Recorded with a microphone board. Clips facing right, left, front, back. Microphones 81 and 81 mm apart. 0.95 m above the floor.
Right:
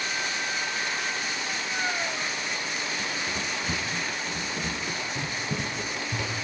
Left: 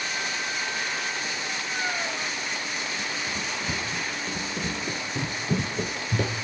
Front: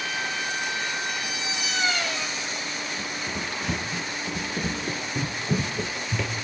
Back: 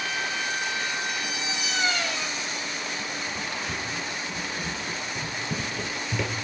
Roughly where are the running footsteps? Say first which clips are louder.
Even, front 1 dB; ahead.